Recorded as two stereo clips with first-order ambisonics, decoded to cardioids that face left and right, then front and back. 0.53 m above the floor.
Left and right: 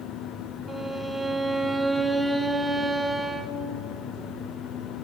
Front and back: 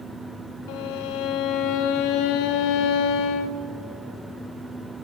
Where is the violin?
5° right, 0.6 m.